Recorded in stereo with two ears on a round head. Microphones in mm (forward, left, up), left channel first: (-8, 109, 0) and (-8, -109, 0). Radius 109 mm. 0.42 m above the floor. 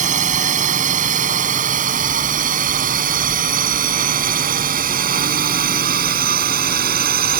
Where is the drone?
30° right (ahead or behind); by 7.4 s 40° right (ahead or behind).